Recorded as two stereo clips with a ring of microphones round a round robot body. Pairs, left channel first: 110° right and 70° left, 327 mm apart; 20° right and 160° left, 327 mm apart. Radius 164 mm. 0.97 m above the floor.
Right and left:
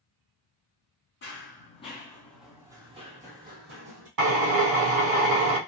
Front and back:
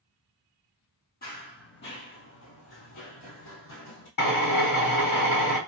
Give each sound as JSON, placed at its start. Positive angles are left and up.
{"t": 1.2, "sound": "running footsteps", "azimuth_deg": -70, "distance_m": 1.2}
{"t": 4.2, "sound": "a drill", "azimuth_deg": 40, "distance_m": 1.5}